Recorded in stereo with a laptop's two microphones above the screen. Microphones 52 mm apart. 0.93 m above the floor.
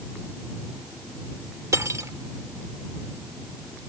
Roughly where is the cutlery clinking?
Right.